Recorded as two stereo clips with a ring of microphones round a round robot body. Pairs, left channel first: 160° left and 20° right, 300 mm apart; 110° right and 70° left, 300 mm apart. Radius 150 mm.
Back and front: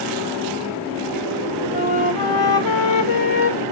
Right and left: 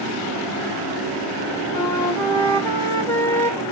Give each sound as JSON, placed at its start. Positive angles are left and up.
{"t": 1.7, "sound": "a flute", "azimuth_deg": 165, "distance_m": 3.0}